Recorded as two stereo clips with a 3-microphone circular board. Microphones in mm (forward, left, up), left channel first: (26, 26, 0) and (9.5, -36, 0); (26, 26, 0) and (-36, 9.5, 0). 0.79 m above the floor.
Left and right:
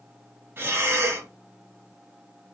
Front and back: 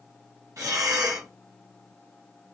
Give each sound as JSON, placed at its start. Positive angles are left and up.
{"t": 0.6, "sound": "breathing", "azimuth_deg": -155, "distance_m": 1.2}